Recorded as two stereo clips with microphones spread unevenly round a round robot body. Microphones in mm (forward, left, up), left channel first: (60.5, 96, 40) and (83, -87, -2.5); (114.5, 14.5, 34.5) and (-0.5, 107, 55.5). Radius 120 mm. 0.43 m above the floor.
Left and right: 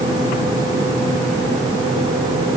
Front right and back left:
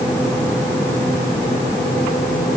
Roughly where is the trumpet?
I don't hear a trumpet.